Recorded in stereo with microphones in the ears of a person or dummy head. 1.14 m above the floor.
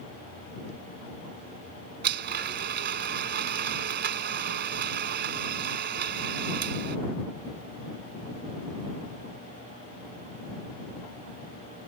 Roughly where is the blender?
Right.